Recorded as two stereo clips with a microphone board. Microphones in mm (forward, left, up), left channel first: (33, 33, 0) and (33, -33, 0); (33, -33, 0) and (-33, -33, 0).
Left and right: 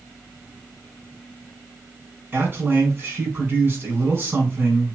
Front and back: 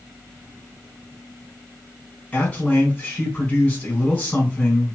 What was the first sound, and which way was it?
A man speaking, 70° right.